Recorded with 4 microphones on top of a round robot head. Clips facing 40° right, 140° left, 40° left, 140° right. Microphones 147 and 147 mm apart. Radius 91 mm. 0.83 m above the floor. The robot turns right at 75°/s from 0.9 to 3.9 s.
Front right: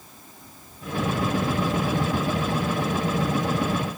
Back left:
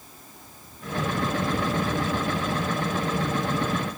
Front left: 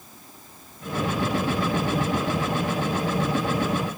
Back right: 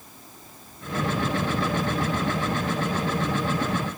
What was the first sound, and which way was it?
Only background noise.